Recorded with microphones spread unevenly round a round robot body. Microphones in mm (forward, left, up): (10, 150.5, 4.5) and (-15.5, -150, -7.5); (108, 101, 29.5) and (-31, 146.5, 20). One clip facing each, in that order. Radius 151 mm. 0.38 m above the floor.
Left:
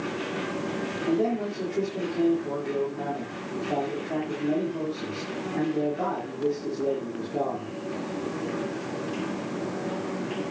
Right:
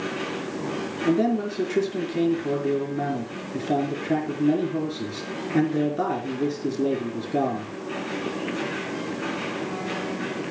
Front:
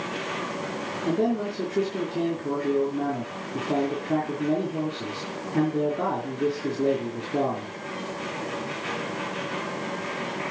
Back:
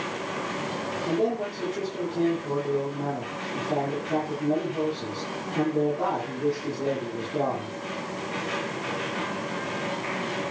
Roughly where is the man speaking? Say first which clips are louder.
Right 4 dB, front 2 dB; right.